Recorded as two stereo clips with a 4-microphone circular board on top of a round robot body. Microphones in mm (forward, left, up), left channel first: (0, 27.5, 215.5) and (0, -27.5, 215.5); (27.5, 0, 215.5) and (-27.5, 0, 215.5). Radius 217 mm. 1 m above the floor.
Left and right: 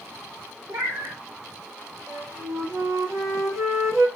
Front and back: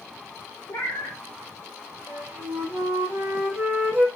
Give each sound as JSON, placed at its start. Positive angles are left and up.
{"t": 0.7, "sound": "a cat meowing", "azimuth_deg": -45, "distance_m": 1.3}
{"t": 2.1, "sound": "a flute", "azimuth_deg": -125, "distance_m": 1.9}